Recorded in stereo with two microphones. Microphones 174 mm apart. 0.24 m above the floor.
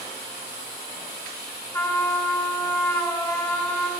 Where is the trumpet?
15° left (ahead or behind), 0.8 m.